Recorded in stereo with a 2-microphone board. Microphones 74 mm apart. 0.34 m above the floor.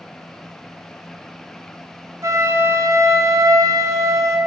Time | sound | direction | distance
2.2 | a flute | 45° right (ahead or behind) | 1.0 m